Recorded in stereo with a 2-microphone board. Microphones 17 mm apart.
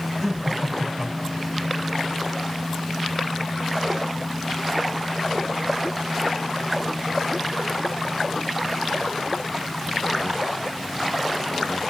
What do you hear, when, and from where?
0.2 s laughter: 20° left (ahead or behind), 3.5 m